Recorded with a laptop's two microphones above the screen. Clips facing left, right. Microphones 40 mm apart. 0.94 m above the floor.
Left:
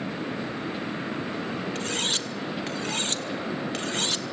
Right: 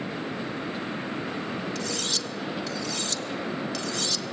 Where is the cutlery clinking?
35° left (ahead or behind), 1.0 m.